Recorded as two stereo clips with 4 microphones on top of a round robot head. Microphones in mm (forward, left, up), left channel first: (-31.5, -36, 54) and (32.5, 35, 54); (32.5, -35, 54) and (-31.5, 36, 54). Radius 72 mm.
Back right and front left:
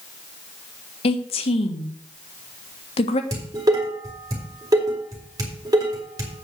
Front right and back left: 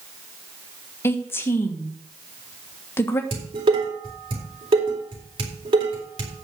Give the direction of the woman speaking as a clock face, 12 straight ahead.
4 o'clock.